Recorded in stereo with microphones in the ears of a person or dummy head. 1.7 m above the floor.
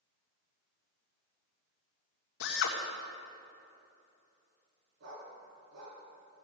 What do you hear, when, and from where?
2.4 s a drill: 70° left (ahead or behind), 1.6 m
5.0 s a dog barking: 70° right (ahead or behind), 5.5 m